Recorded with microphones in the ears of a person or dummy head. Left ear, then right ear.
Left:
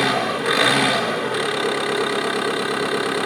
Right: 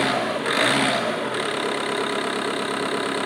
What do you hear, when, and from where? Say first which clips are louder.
0.0 s an engine running: left 2 dB; centre (ahead or behind), 0.7 m